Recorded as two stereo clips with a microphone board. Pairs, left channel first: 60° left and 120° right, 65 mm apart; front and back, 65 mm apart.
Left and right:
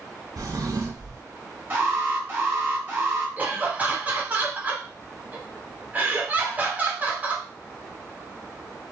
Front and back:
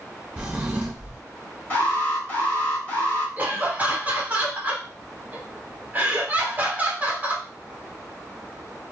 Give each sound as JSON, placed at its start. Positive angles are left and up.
{"t": 0.4, "sound": "a drawer", "azimuth_deg": -105, "distance_m": 0.8}
{"t": 1.7, "sound": "an alarm", "azimuth_deg": -65, "distance_m": 1.4}
{"t": 3.4, "sound": "laughter", "azimuth_deg": -155, "distance_m": 0.9}